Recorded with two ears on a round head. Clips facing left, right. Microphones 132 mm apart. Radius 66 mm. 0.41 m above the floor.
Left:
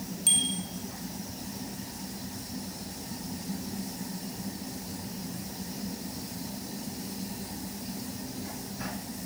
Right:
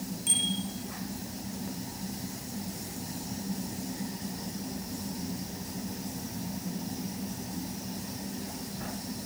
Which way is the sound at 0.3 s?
45° left (ahead or behind).